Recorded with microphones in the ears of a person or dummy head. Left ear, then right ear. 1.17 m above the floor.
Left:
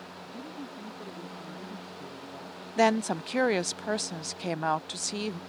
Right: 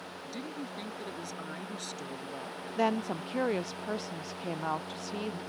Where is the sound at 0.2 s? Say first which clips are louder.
Right 2 dB; 70° right (ahead or behind).